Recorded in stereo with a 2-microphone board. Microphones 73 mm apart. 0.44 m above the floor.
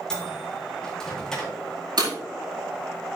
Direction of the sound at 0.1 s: 10° left (ahead or behind).